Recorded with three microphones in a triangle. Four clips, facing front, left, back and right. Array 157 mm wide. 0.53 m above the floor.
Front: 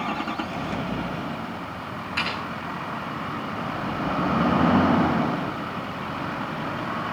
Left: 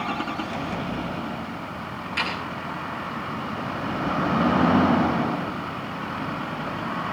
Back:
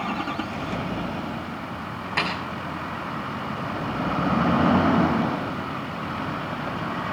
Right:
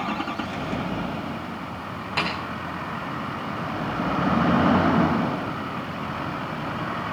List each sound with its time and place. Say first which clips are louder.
2.2 s a snare drum: right 2 dB, back 3 dB; 130° right, 9 m